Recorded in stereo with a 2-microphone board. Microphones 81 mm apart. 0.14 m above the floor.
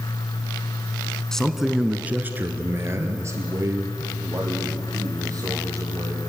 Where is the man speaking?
10° left (ahead or behind), 1.2 m; by 6.2 s 45° right (ahead or behind), 5.5 m.